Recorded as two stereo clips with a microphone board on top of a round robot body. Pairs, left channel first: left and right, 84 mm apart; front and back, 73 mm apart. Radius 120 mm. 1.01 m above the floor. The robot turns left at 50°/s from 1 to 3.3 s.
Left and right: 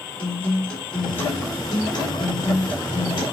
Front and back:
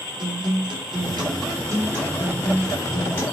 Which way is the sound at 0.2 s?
165° left.